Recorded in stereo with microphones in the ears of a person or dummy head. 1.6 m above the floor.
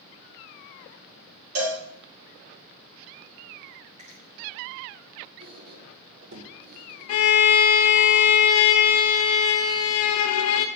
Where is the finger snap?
30° right (ahead or behind), 1.8 m.